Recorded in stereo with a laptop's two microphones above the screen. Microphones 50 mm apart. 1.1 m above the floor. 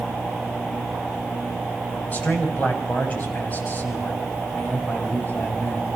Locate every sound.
2.1 s a man speaking: 35° left (ahead or behind), 6.5 m